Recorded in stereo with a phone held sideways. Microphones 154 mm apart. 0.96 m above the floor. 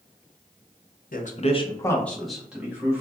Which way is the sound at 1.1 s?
65° left (ahead or behind).